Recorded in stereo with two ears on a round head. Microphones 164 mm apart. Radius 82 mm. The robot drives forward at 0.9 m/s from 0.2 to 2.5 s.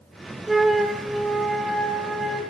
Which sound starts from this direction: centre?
A flute, at 0.5 s.